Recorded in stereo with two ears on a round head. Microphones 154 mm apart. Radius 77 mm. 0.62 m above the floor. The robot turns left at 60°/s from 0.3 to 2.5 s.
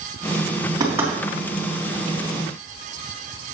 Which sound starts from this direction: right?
Knocking, at 0.8 s.